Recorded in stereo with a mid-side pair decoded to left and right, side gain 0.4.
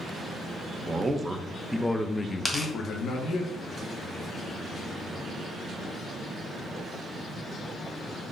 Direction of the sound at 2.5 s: 20° left.